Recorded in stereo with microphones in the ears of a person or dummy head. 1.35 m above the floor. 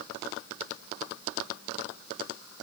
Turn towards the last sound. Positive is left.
No sound to turn to.